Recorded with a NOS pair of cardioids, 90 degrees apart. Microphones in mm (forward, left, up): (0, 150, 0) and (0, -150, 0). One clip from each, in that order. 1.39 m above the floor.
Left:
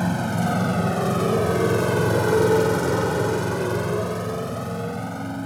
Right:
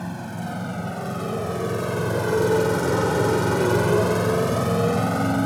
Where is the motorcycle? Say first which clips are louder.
Left 8 dB; 55° left; by 5.5 s 60° right.